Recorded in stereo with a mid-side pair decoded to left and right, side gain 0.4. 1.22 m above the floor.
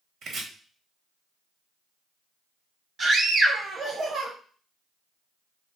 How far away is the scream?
About 0.9 m.